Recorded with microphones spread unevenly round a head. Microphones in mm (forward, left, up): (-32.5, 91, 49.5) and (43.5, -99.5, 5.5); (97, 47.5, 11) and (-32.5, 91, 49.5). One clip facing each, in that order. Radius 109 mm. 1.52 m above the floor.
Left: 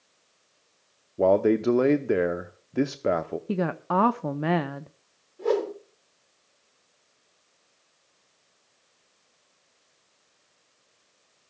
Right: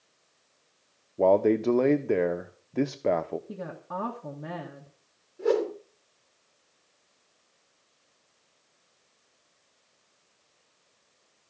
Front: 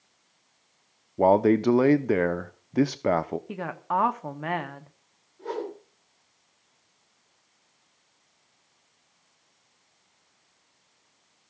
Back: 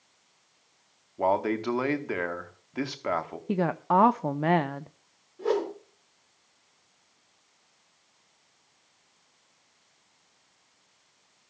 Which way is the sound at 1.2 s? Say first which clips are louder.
Left 1 dB, front 7 dB; 30° left.